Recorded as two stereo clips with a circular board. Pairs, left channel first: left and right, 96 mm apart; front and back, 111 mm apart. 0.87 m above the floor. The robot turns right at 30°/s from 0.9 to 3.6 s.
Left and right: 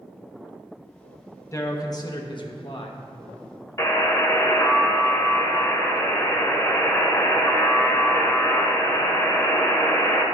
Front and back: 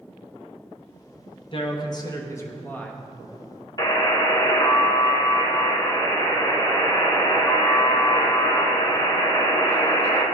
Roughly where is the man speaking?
Ahead left.